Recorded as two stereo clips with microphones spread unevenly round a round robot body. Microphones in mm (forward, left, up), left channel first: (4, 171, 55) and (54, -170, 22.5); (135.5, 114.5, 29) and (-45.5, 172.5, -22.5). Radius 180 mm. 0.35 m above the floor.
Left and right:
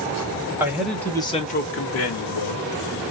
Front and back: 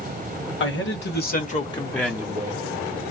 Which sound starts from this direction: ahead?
A man speaking, at 0.6 s.